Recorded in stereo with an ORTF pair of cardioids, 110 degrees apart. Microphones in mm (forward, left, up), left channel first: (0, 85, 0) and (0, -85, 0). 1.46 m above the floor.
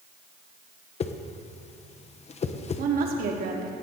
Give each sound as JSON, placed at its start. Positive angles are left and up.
{"t": 1.0, "sound": "a whoosh", "azimuth_deg": 40, "distance_m": 1.1}
{"t": 2.8, "sound": "a woman speaking", "azimuth_deg": -60, "distance_m": 3.0}